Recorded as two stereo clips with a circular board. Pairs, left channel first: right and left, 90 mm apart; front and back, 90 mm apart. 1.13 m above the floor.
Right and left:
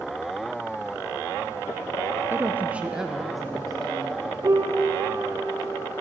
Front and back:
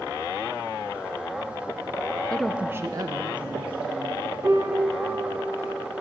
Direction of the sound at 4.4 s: 130° left.